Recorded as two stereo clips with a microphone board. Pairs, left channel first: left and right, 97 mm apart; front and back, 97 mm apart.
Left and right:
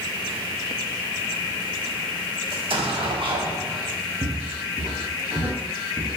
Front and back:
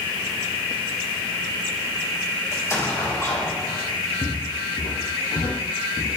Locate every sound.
2.5 s an explosion: 60° right, 1.5 m
4.2 s footsteps: 35° right, 2 m; by 6.2 s 10° right, 3.5 m